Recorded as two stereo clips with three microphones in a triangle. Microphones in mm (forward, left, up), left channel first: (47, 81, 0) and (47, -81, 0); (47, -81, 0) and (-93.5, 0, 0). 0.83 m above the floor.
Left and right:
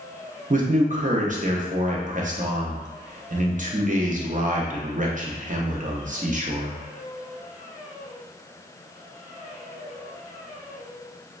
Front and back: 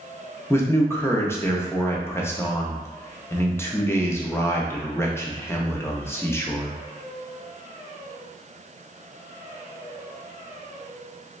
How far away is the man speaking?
About 0.5 m.